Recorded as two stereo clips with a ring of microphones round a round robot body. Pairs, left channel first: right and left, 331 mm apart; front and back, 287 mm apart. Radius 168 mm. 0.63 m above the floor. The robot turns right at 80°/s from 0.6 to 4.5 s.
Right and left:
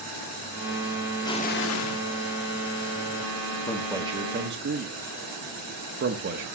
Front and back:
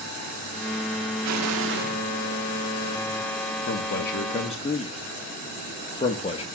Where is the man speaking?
10° right, 1.3 m; by 6.5 s 55° left, 1.3 m.